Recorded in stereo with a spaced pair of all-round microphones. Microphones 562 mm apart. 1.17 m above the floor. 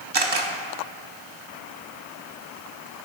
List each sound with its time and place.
0.1 s a camera shutter: 50° right (ahead or behind), 0.8 m